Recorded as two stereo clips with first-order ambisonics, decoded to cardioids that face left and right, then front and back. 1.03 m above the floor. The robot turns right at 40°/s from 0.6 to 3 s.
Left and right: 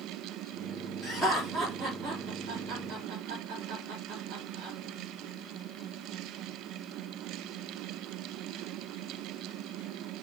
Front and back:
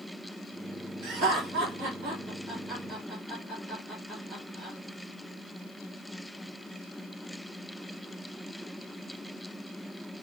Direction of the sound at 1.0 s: 175° left.